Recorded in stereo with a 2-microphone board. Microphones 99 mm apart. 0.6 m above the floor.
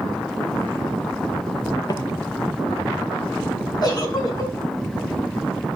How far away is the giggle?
About 4 m.